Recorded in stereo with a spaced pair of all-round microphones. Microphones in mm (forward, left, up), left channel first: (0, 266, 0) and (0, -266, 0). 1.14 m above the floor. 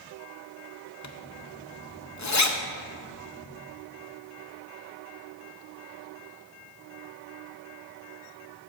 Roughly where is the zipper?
Left.